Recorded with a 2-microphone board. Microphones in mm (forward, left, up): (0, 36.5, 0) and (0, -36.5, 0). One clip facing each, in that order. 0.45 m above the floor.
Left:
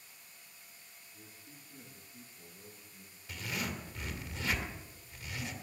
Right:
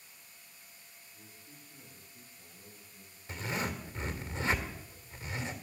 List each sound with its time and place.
1.1 s a man speaking: 45° left (ahead or behind), 9.5 m; by 3.2 s 50° left (ahead or behind), 9.5 m
3.3 s a zipper: 30° right (ahead or behind), 1.8 m